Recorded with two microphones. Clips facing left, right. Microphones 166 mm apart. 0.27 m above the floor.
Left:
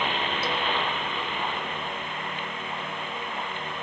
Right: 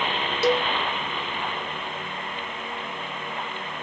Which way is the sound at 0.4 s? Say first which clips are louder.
Right 12 dB; 75° right (ahead or behind).